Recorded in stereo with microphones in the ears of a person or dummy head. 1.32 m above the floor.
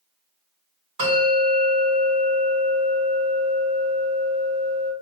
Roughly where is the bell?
Right.